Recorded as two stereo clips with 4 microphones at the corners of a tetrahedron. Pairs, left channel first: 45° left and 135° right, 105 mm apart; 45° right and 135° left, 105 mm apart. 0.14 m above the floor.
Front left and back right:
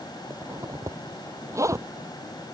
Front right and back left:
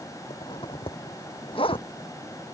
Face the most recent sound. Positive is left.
turn(degrees=-75)